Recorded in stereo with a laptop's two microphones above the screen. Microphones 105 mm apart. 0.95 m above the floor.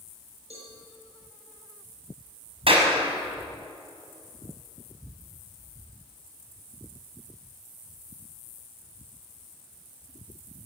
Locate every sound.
0.5 s a cowbell: 85° right, 7 m
2.7 s a clap: 65° right (ahead or behind), 5 m